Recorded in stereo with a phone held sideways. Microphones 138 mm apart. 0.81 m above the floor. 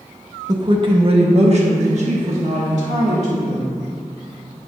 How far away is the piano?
I don't hear a piano.